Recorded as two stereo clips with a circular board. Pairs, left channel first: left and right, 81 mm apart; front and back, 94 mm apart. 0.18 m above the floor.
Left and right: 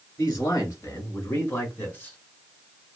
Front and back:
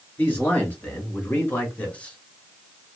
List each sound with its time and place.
0.2 s a man speaking: 65° left, 2 m; by 2.2 s 50° left, 1.1 m